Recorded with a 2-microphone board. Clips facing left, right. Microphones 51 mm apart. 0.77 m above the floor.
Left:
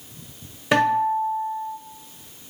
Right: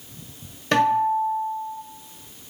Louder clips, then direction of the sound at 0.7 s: Even; 10° left (ahead or behind).